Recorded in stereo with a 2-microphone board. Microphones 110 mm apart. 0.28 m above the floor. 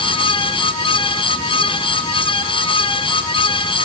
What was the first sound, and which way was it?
Only background noise.